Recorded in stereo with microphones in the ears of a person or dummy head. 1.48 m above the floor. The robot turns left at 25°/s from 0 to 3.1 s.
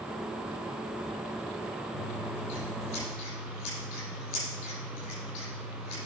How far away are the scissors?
About 6.5 m.